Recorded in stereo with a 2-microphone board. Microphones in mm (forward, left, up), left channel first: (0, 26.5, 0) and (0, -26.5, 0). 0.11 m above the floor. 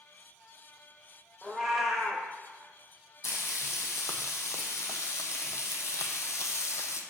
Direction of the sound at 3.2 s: 75° left (ahead or behind).